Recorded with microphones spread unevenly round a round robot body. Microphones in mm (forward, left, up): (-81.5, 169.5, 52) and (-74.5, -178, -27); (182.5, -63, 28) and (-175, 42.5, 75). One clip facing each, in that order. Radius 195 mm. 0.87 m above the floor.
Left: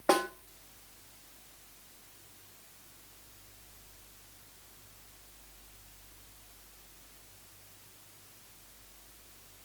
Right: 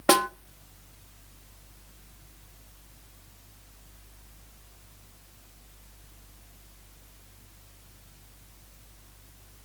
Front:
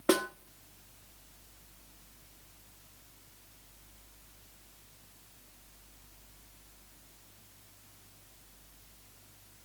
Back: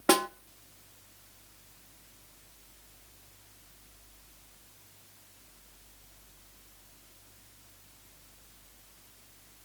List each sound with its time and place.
0.1 s a snare drum: 115° right, 1.0 m